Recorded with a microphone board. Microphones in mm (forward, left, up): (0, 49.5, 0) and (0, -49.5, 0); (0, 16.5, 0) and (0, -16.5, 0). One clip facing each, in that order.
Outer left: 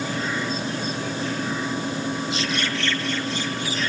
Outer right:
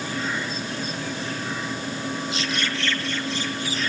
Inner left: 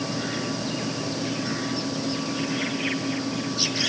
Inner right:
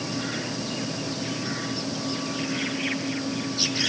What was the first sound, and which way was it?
Only background noise.